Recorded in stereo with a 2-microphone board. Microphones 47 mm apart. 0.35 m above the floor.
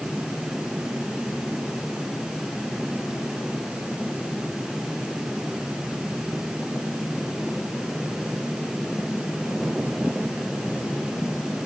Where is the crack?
No crack in this recording.